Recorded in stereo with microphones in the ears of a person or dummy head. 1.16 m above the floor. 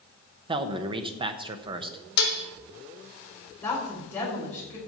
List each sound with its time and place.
0.5 s a man speaking: 30° right (ahead or behind), 0.9 m
2.2 s dishes clattering: 60° left (ahead or behind), 0.8 m
3.6 s a woman speaking: 10° left (ahead or behind), 4.5 m